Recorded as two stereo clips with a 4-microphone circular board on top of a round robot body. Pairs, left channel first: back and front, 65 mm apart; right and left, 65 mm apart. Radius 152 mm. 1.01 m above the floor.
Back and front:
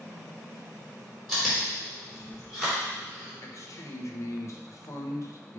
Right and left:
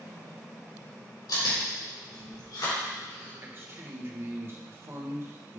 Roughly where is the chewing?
Right.